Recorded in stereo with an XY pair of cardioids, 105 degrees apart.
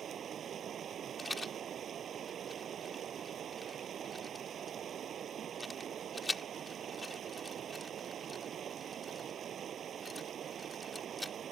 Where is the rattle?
15° left.